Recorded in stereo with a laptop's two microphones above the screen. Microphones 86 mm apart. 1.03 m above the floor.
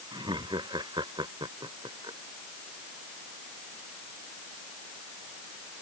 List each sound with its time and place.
0.1 s laughter: 60° right (ahead or behind)